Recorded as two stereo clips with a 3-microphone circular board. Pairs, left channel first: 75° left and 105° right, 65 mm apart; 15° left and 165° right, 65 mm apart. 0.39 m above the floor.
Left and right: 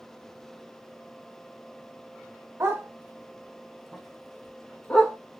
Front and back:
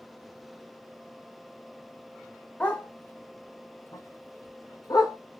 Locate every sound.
2.6 s a dog barking: 55° right, 1.1 m; by 5.2 s straight ahead, 2 m